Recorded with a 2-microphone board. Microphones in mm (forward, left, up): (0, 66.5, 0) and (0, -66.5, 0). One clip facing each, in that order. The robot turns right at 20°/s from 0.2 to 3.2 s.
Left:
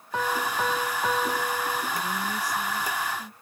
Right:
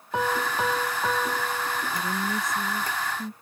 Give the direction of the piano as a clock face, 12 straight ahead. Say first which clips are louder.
Right 1 dB; 1 o'clock.